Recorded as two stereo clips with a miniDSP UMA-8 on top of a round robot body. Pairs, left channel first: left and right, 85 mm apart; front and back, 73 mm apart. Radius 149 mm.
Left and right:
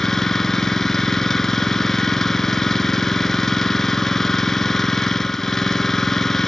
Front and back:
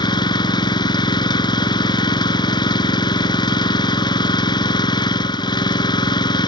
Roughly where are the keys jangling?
No keys jangling in this recording.